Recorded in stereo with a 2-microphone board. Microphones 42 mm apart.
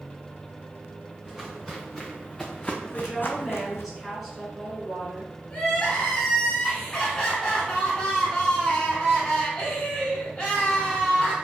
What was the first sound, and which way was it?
Footsteps, 10° right (ahead or behind).